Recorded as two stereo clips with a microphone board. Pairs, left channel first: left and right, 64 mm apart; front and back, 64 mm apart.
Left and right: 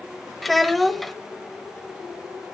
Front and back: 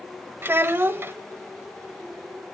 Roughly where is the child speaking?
Behind.